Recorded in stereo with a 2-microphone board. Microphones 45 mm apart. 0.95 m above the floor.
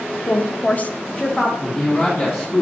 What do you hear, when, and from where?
0.3 s a woman speaking: 35° left (ahead or behind), 1.1 m; by 1.5 s 10° left (ahead or behind), 1.2 m
1.6 s a man speaking: 45° left (ahead or behind), 1.8 m